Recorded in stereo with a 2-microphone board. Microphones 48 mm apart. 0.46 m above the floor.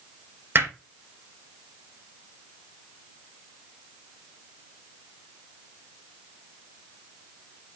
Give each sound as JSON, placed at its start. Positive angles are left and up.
{"t": 0.6, "sound": "hammering", "side_deg": -50, "distance_m": 2.5}